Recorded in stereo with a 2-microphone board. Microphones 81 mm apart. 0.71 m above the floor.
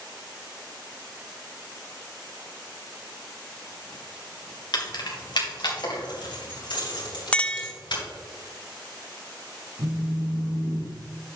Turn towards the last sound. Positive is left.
turn(degrees=-65)  # may be behind; listen again after turning